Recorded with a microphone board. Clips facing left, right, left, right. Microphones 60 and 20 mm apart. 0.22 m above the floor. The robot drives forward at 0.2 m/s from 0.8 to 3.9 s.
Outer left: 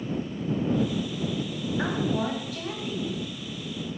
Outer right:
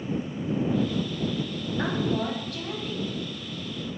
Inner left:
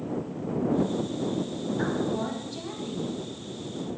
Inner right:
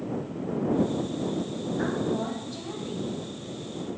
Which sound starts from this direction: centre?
A woman speaking, at 1.8 s.